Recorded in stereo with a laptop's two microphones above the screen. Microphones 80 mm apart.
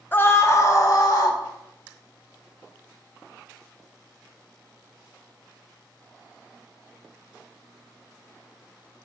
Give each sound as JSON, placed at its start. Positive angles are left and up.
{"t": 0.1, "sound": "a scream", "side_deg": 25, "distance_m": 0.6}